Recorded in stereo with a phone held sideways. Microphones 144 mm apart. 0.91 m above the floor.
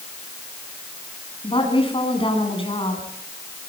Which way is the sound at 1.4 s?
35° left (ahead or behind).